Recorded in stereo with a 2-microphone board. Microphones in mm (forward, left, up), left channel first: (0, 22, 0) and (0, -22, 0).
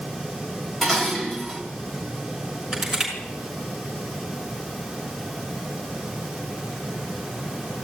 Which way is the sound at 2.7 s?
5° right (ahead or behind).